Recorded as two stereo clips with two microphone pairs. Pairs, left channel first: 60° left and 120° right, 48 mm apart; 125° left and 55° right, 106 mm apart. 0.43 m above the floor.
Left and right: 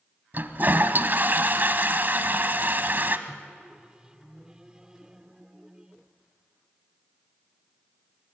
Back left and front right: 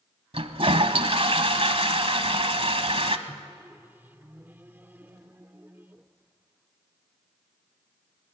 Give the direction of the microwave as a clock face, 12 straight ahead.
3 o'clock.